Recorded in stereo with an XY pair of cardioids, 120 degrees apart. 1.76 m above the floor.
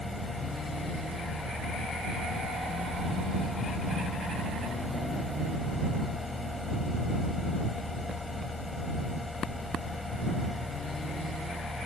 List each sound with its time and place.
0.0 s a fan: 15° left